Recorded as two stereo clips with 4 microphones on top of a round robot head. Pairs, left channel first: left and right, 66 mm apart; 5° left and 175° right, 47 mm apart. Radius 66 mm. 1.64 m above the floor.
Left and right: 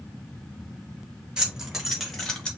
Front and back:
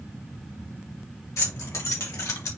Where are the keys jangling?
10° right, 1.9 m; by 2.5 s 15° left, 1.3 m.